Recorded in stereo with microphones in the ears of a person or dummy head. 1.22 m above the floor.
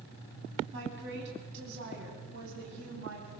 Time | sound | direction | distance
0.7 | a woman speaking | 55° right (ahead or behind) | 10 m